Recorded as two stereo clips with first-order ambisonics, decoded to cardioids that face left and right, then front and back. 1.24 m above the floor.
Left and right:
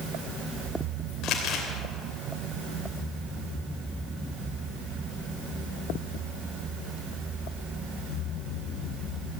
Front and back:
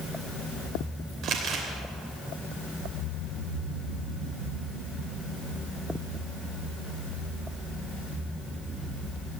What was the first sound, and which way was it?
Crumpling, 130° left.